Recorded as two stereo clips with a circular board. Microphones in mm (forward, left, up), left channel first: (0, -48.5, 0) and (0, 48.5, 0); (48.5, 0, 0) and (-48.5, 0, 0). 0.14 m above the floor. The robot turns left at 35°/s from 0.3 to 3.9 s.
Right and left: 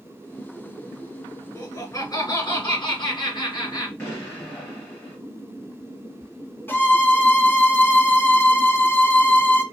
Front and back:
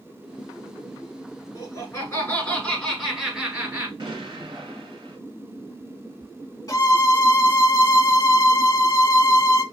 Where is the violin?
30° right, 0.8 m.